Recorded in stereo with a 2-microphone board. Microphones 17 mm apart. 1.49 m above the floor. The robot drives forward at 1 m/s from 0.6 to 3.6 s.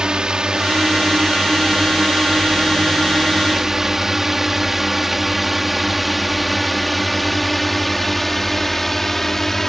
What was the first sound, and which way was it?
A drone, 40° right (ahead or behind).